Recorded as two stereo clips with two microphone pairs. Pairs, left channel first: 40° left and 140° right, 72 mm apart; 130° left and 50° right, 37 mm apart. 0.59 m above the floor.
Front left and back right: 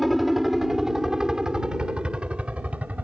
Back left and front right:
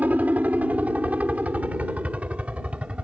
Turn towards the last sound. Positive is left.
turn(degrees=-85)